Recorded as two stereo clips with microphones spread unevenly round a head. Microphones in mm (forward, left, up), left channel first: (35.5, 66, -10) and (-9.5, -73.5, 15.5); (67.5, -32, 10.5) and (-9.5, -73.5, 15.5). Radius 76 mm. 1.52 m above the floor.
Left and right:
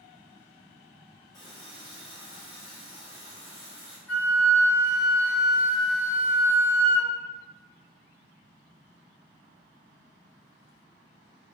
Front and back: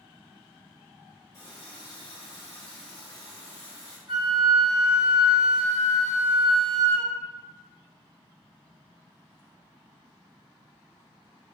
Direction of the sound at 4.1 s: 160° left.